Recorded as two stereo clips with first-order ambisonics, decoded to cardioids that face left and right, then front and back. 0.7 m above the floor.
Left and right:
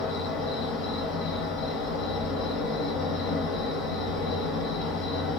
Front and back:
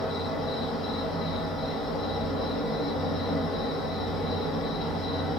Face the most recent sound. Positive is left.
turn(degrees=70)